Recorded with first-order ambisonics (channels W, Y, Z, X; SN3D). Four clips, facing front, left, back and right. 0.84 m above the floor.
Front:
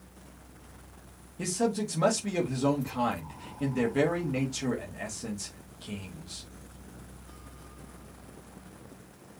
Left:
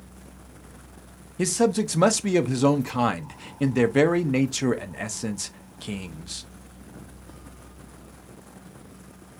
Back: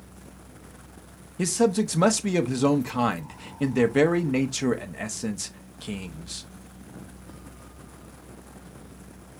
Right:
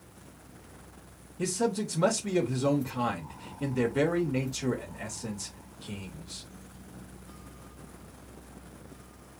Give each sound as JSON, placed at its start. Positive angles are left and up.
{"t": 1.4, "sound": "a man speaking", "azimuth_deg": 120, "distance_m": 0.9}